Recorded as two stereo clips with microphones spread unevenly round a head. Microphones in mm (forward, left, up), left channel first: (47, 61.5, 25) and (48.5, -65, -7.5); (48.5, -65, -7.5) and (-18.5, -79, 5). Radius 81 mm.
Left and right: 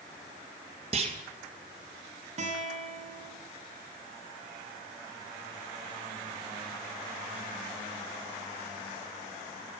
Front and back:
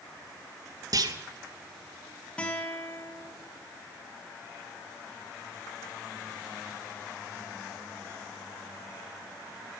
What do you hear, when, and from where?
0.9 s a clunk: 145° right, 2.5 m
2.4 s a guitar: 60° right, 6.5 m